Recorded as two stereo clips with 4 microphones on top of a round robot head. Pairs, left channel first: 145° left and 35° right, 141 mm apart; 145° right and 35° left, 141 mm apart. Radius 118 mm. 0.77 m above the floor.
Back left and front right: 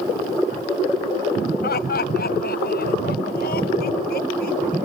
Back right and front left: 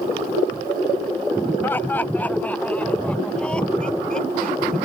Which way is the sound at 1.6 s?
140° left.